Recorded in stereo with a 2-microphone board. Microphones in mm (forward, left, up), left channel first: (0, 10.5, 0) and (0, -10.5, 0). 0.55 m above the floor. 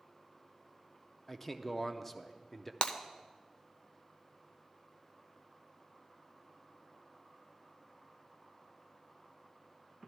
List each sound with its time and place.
1.3 s a man speaking: 10° left (ahead or behind), 0.6 m
2.8 s breaking glass: 65° left (ahead or behind), 0.7 m